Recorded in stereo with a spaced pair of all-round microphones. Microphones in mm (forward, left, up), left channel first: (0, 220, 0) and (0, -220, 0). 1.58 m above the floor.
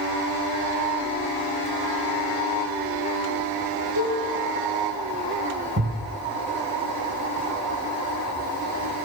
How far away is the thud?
About 2.5 m.